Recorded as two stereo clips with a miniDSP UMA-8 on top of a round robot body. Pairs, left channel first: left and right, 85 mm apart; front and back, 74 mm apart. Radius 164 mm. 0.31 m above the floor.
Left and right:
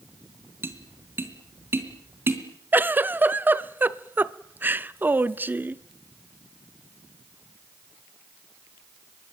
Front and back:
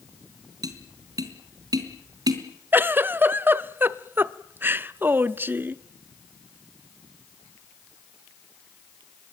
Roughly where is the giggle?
Behind right.